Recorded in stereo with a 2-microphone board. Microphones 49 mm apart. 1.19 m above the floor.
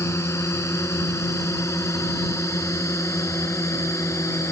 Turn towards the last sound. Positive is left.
turn(degrees=85)